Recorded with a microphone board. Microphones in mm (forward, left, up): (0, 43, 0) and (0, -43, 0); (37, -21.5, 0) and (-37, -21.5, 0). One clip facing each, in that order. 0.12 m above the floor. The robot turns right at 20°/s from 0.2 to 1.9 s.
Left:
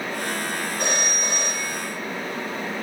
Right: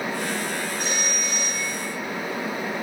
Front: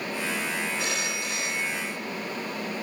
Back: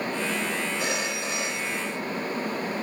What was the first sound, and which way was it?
A phone ringing, 100° left.